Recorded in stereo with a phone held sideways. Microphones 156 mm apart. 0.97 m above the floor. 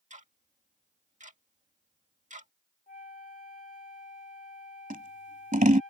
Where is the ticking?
50° right (ahead or behind).